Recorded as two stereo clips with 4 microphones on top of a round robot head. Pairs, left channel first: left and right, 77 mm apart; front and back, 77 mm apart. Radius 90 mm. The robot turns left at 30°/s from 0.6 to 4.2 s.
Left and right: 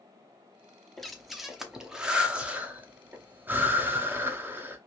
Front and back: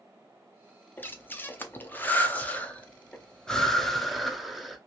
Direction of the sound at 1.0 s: 5° left.